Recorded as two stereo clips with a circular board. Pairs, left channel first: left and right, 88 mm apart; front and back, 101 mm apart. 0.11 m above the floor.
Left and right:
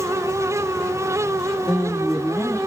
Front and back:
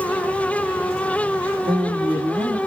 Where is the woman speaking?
Straight behind, 2.5 m.